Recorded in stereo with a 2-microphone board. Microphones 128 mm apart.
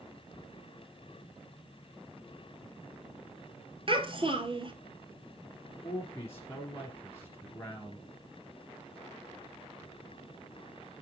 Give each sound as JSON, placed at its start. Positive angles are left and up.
{"t": 3.9, "sound": "a child speaking", "side_deg": -45, "distance_m": 1.1}
{"t": 5.8, "sound": "a man speaking", "side_deg": 20, "distance_m": 1.5}